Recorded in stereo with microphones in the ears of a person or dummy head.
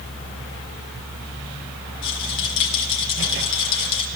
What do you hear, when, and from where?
2.0 s a rattle: 70° left (ahead or behind), 2.5 m